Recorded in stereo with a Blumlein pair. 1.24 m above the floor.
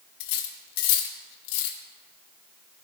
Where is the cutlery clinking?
45° left, 0.9 m.